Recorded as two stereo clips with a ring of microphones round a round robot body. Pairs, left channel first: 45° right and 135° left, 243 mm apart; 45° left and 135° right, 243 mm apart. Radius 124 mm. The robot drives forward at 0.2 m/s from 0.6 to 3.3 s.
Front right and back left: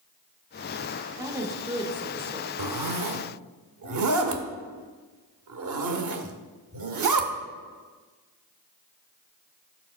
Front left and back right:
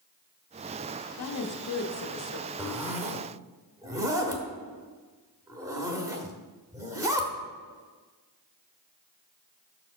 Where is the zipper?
140° left, 0.6 m; by 7.3 s 150° left, 0.7 m.